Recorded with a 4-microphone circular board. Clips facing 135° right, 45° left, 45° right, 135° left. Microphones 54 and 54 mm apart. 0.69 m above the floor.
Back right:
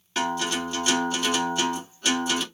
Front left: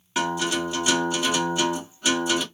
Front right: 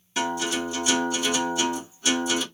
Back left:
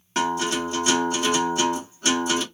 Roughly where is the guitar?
Behind left.